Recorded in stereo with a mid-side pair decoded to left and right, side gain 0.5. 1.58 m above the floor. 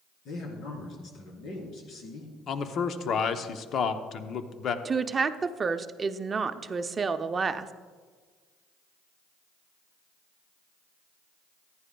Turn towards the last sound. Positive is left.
turn(degrees=-35)